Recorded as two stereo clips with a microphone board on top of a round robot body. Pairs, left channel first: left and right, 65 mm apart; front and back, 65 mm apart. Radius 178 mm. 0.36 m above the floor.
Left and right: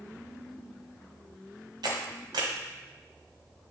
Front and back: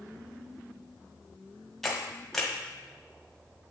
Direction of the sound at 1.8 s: 85° right.